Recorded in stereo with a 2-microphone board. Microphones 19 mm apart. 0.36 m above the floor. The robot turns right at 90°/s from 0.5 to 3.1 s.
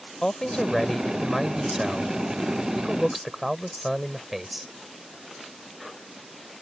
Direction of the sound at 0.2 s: 110° left.